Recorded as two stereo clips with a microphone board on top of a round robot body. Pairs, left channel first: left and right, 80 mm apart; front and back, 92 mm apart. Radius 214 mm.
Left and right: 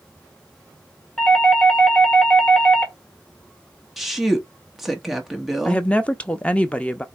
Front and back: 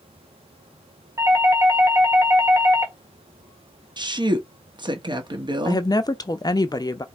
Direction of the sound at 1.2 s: 160° left.